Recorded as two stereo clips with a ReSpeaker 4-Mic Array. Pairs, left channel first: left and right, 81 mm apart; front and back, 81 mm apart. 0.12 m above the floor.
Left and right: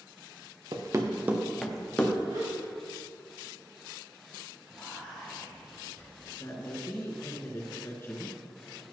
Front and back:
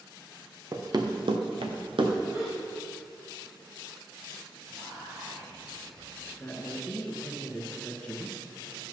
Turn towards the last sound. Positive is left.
turn(degrees=65)